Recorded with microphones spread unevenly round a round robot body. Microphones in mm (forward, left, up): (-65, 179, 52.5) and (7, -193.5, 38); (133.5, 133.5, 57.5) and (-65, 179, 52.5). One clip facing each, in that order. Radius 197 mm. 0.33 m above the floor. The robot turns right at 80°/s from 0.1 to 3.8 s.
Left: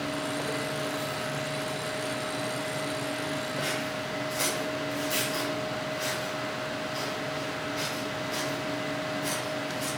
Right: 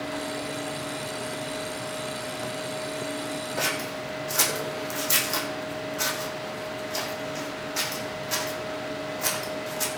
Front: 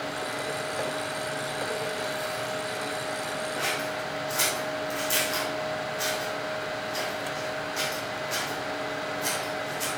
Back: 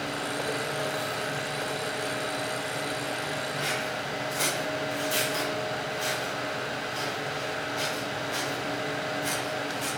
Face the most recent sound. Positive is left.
turn(degrees=-55)